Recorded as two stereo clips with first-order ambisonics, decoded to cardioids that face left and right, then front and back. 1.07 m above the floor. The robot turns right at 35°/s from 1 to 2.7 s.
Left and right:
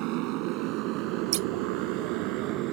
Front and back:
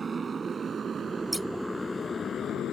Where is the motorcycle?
110° right; by 2.7 s 60° right.